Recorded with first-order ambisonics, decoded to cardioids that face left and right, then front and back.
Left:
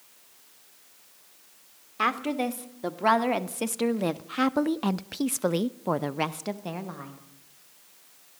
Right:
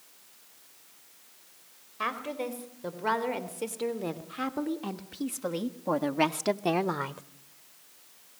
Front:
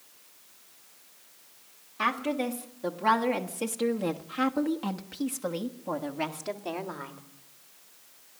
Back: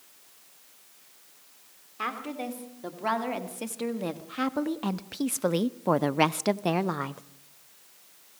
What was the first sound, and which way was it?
A woman speaking, 80° left.